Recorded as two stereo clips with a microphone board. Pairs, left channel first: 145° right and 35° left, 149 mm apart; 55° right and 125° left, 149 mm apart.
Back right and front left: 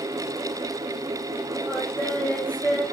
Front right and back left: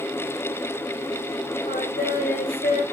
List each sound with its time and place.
1.7 s singing: 65° right, 4 m